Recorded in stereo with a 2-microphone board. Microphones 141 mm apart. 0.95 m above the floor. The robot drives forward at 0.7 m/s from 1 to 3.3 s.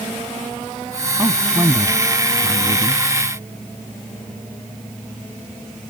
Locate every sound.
1.2 s a man speaking: 15° right (ahead or behind)